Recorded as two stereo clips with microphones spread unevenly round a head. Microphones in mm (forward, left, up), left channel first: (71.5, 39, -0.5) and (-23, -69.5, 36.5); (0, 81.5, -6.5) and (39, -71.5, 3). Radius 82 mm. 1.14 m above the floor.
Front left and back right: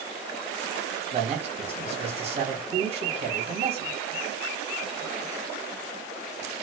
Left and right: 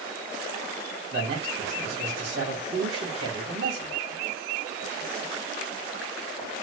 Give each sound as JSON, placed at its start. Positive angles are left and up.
{"t": 1.1, "sound": "a man speaking", "azimuth_deg": -80, "distance_m": 2.5}